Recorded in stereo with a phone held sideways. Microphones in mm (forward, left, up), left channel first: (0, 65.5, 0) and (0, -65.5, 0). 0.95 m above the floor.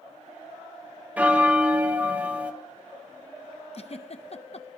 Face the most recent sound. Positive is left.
turn(degrees=50)  # may be behind; listen again after turning